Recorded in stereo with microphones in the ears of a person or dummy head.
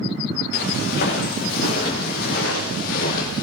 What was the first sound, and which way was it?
Footsteps, 60° left (ahead or behind).